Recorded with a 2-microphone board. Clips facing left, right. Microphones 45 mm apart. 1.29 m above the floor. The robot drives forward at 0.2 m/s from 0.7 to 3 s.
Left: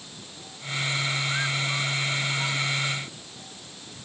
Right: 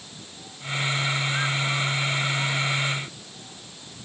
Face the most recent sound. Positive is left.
No sound to turn to.